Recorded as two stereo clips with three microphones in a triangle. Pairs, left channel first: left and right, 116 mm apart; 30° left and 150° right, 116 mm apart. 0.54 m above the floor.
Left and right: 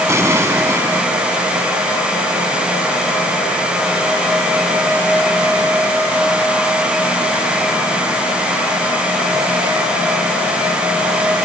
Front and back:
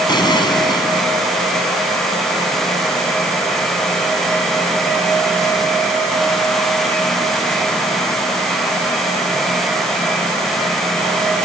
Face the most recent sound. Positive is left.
turn(degrees=-20)